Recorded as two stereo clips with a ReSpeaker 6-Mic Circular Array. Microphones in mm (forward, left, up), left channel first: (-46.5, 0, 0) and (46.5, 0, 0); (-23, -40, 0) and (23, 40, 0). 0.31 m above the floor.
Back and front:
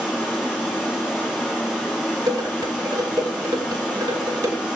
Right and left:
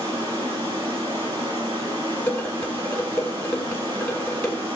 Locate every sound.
0.0 s running water: 80° left, 3 m
2.3 s dishes clattering: 40° right, 2 m